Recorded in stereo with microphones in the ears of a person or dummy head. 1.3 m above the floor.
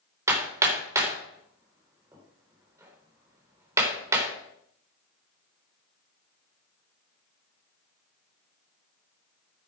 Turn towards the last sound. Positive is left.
turn(degrees=-20)  # may be behind; listen again after turning